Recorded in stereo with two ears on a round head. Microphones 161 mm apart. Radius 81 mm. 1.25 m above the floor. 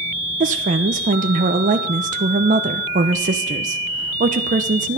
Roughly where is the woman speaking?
Right.